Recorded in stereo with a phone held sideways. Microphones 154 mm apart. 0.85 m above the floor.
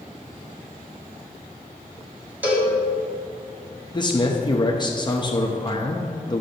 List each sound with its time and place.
2.4 s a cowbell: 10° right (ahead or behind), 1.7 m
3.9 s a man speaking: 30° left (ahead or behind), 0.7 m